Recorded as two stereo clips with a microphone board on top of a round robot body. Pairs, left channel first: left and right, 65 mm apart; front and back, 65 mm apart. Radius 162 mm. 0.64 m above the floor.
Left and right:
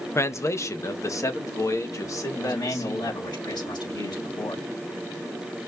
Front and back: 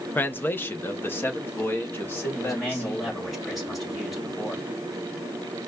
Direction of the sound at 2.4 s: 90° left.